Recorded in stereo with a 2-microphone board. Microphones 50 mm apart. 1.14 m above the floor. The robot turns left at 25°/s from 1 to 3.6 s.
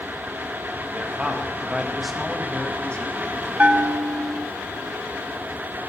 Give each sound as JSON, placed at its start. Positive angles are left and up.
{"t": 0.9, "sound": "a man speaking", "azimuth_deg": -155, "distance_m": 1.3}
{"t": 3.6, "sound": "a bell", "side_deg": -25, "distance_m": 0.5}